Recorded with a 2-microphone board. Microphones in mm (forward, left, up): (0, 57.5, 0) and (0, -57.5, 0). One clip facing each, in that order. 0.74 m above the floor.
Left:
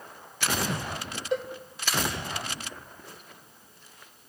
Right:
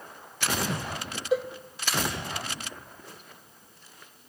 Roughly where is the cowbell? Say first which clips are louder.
Right 3 dB; centre.